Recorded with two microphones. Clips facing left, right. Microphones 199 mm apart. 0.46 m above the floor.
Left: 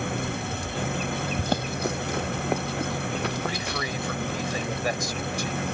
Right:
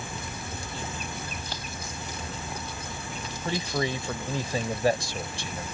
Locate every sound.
0.0 s an engine running: 65° left (ahead or behind)
1.4 s running footsteps: 55° left (ahead or behind); by 4.3 s 70° left (ahead or behind)
3.5 s a man speaking: 30° right (ahead or behind)